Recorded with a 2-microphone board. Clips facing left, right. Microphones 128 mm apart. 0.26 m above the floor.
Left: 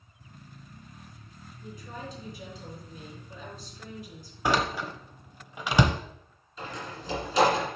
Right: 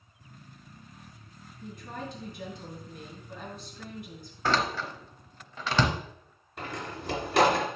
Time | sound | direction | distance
1.6 | a woman speaking | 60° right (ahead or behind) | 3.5 m
4.5 | a door slam | 15° left (ahead or behind) | 0.8 m
6.6 | a door slam | 65° right (ahead or behind) | 2 m